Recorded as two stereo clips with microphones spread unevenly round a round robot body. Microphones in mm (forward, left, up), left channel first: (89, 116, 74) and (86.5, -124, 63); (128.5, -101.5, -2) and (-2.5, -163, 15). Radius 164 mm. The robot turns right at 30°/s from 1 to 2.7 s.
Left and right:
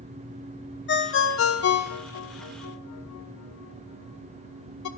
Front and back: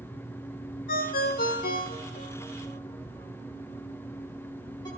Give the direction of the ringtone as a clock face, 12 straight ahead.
10 o'clock.